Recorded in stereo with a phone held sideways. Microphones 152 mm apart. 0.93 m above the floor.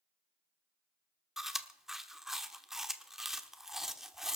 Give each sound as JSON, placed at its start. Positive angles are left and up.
{"t": 1.4, "sound": "chewing", "side_deg": 0, "distance_m": 1.1}